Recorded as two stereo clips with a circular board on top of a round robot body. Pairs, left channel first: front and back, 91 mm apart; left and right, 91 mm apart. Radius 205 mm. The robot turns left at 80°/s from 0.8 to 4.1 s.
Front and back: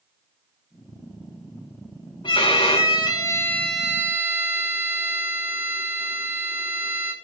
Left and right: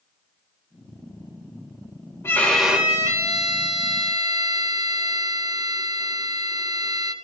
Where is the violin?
30° left, 3 m; by 7.1 s 115° right, 3 m.